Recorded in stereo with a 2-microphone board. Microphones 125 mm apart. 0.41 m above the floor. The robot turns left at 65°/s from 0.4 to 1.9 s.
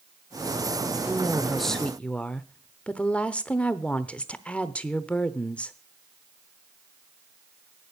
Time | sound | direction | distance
1.0 | a woman speaking | 15° right (ahead or behind) | 0.8 m